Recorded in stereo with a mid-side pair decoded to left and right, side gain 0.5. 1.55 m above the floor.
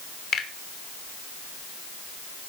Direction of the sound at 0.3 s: 65° left.